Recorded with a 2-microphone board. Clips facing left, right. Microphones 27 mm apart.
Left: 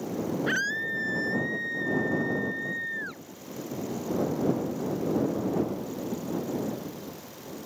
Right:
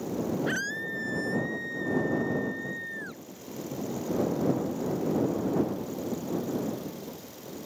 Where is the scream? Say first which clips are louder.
Left 3 dB; 20° left (ahead or behind).